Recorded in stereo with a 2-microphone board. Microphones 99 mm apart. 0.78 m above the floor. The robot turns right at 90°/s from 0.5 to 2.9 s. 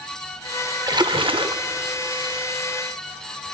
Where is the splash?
135° right, 0.6 m; by 1.6 s 65° right, 0.6 m.